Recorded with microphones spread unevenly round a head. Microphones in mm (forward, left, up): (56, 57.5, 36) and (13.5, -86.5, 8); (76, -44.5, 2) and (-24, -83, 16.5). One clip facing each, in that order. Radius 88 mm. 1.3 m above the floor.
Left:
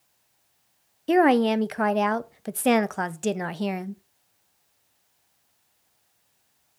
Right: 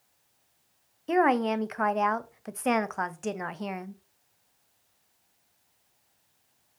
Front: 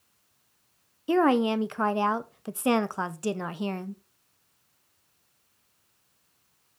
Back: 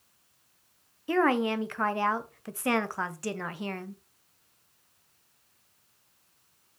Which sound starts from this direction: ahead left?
A woman speaking, at 1.1 s.